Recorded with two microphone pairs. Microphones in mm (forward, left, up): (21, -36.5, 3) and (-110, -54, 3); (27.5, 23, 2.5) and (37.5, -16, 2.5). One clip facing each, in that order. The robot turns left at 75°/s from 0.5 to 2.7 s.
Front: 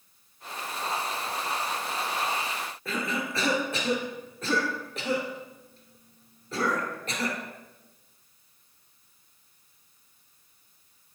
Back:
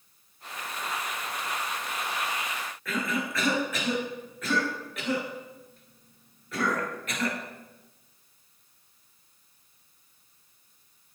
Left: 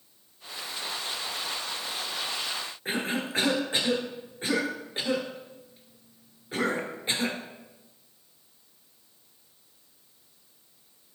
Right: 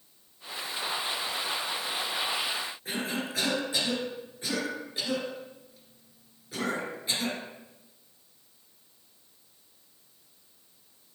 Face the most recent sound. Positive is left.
turn(degrees=60)